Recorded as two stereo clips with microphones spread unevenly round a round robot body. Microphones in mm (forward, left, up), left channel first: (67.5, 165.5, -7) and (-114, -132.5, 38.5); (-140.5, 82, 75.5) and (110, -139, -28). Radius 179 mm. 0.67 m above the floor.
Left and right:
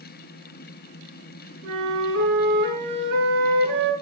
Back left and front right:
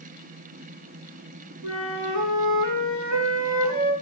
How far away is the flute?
About 6 m.